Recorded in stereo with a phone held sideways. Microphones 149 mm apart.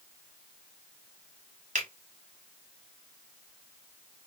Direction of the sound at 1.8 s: 50° right (ahead or behind).